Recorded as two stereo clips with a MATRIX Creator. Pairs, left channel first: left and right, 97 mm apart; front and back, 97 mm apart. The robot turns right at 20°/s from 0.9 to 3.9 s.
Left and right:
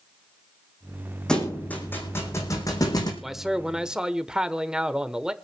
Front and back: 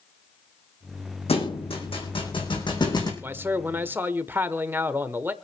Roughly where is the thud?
Ahead.